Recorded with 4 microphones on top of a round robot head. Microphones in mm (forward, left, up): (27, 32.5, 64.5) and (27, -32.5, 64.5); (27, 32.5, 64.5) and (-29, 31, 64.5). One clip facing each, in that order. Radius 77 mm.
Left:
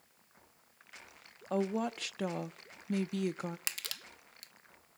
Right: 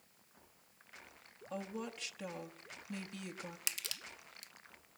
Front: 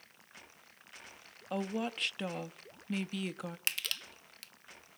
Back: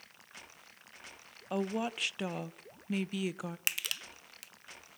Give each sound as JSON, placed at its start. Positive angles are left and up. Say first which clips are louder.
{"t": 1.5, "sound": "a woman speaking", "louder": "left 10 dB, back 2 dB", "azimuth_deg": 100, "distance_m": 0.8}
{"t": 3.7, "sound": "crushing", "louder": "left 2 dB, even", "azimuth_deg": 105, "distance_m": 1.1}